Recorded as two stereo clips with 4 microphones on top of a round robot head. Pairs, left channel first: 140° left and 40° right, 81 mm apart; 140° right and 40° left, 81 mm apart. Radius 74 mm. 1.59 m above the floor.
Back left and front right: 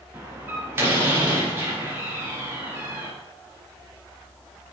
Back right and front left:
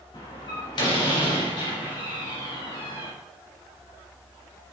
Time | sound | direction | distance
0.1 | a door slam | 105° right | 4 m